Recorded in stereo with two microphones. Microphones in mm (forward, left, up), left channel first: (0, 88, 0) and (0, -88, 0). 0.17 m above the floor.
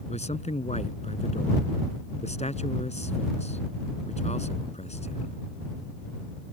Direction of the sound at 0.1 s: 40° left (ahead or behind).